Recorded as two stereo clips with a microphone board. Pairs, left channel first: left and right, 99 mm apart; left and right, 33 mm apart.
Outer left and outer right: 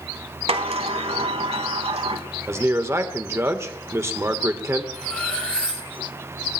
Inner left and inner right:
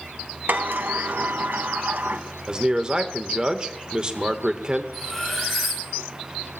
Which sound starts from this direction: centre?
Cutlery clinking, at 4.9 s.